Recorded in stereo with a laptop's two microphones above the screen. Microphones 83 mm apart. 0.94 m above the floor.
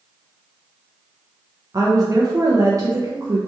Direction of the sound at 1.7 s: 40° right (ahead or behind).